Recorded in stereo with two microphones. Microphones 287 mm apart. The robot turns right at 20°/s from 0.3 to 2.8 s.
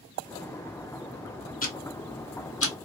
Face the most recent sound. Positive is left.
turn(degrees=55)  # may be behind; listen again after turning